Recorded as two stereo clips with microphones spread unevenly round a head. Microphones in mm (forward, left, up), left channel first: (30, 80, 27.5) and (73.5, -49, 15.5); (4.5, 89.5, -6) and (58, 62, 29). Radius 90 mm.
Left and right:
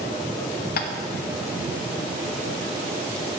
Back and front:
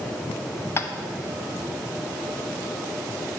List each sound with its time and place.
0.8 s tapping: 100° left, 0.6 m